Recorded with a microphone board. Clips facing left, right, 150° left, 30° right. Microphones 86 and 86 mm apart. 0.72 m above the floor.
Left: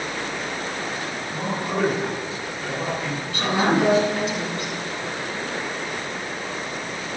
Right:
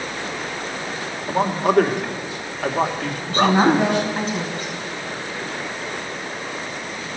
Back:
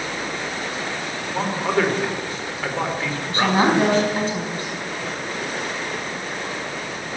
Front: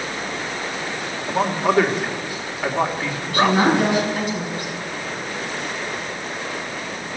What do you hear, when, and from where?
1.3 s a man speaking: 110° right, 2.5 m
3.3 s a woman speaking: 145° right, 5 m